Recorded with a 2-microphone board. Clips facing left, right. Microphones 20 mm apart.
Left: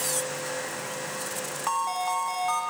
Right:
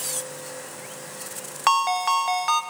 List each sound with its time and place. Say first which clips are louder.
1.7 s a ringtone: right 8 dB; 60° right (ahead or behind), 0.7 m